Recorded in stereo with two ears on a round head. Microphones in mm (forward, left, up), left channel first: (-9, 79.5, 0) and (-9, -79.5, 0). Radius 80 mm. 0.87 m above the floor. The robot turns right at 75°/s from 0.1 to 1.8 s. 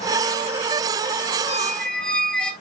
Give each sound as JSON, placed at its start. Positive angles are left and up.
{"t": 1.5, "sound": "a squeak", "side_deg": 15, "distance_m": 0.9}